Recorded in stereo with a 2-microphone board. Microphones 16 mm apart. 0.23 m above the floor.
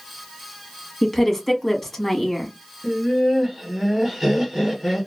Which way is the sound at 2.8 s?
20° right (ahead or behind).